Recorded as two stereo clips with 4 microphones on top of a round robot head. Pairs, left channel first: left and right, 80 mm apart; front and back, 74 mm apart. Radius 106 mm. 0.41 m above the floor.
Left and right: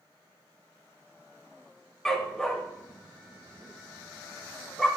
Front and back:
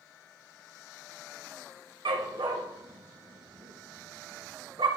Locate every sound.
2.0 s a dog barking: 175° left, 1.6 m